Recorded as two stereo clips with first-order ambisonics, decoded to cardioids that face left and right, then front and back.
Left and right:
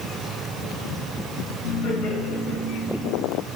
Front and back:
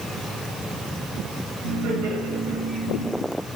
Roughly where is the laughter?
Behind left.